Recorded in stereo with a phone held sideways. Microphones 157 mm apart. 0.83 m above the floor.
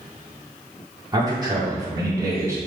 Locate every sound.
1.1 s a man speaking: 25° right (ahead or behind), 2 m; by 2.6 s 20° right (ahead or behind), 3 m